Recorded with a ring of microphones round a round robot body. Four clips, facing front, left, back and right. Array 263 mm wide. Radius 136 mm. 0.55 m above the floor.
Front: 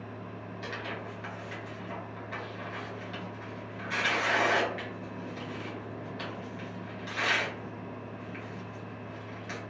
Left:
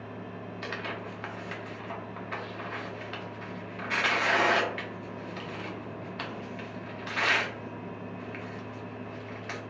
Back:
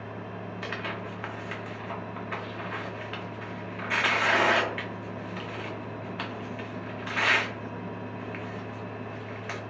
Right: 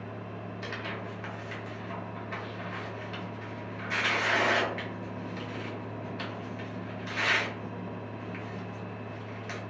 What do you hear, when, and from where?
0.6 s tearing paper: 150° left, 0.7 m